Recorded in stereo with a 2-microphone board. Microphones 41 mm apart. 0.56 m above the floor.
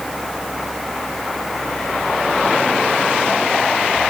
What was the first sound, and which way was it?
Only background noise.